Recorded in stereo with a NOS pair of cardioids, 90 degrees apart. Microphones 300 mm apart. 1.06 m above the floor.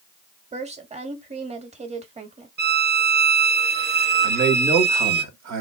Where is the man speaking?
65° right, 1.6 m.